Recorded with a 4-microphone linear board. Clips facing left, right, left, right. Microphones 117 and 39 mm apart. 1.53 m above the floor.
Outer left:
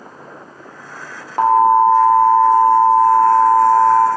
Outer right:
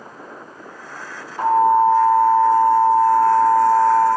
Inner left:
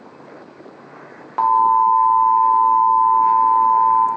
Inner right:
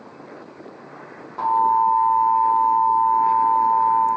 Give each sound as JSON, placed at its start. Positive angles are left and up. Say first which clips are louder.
{"t": 1.4, "sound": "an alarm", "louder": "outer left 3 dB, inner left 4 dB", "side_deg": 70, "distance_m": 0.6}